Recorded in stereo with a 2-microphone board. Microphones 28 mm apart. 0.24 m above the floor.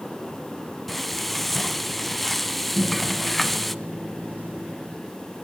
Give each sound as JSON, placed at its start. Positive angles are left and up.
{"t": 0.9, "sound": "frying", "side_deg": 5, "distance_m": 0.7}
{"t": 2.8, "sound": "a microwave", "side_deg": -70, "distance_m": 4.0}